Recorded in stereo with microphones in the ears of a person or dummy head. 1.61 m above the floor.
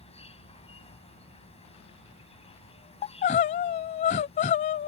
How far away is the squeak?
I don't hear a squeak.